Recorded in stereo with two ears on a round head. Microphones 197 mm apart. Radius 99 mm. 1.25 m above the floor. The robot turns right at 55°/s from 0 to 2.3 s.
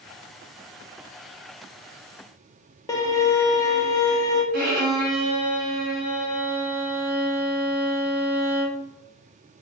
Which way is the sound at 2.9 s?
15° left (ahead or behind).